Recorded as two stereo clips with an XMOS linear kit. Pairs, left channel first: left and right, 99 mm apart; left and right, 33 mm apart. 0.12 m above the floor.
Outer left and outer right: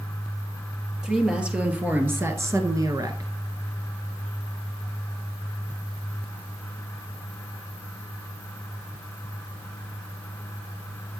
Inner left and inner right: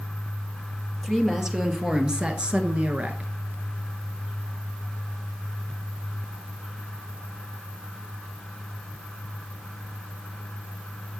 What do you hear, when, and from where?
1.0 s a woman speaking: 5° right (ahead or behind), 2.5 m; by 3.3 s 40° right (ahead or behind), 1.4 m